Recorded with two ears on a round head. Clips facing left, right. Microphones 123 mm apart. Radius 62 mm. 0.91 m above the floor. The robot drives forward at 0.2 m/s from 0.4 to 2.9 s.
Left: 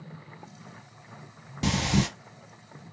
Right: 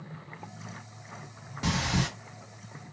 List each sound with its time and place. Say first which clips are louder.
1.6 s breathing: left 4 dB; 30° left (ahead or behind), 0.8 m; by 2.1 s 25° left (ahead or behind), 0.9 m